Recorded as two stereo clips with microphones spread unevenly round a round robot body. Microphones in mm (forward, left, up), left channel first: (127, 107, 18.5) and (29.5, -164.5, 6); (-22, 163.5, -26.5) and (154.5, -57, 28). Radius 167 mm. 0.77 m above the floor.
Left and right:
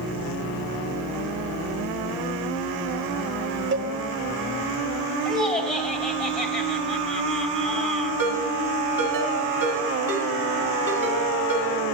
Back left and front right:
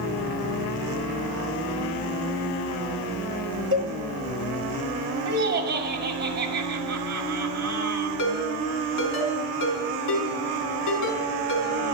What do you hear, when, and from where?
3.7 s a cowbell: 95° right, 0.8 m
5.2 s laughter: 5° left, 2 m
8.2 s a ringtone: 165° left, 5 m